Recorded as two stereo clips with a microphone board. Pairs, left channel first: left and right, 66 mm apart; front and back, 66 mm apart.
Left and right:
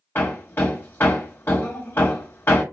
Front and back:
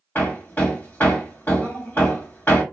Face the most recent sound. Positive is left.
turn(degrees=45)